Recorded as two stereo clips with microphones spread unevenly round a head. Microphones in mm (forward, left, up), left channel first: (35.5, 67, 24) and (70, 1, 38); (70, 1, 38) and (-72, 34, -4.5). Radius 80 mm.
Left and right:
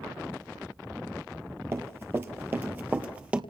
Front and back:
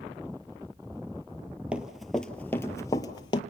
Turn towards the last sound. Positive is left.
turn(degrees=-10)